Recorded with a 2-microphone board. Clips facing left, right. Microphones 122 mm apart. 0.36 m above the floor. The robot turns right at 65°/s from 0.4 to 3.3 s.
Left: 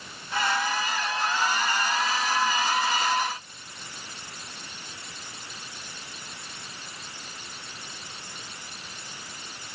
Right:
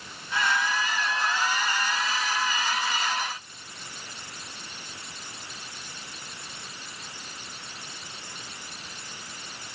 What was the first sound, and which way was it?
Only background noise.